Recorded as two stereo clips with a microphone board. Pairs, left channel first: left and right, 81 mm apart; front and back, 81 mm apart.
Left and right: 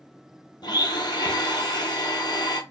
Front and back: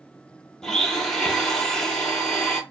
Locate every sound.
0.6 s a blender: 85° left, 0.8 m